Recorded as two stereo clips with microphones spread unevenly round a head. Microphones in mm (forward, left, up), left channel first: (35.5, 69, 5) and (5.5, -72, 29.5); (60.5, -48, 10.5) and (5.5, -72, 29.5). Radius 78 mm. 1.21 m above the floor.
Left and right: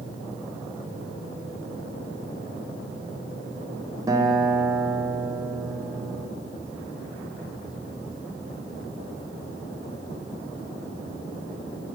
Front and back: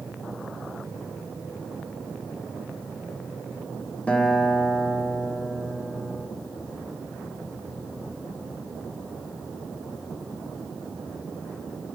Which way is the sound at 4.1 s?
30° right.